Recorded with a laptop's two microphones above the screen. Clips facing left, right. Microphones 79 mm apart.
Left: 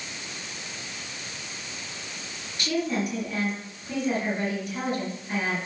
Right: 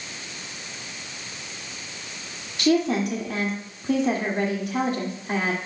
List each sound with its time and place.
2.6 s a woman speaking: 85° right, 2 m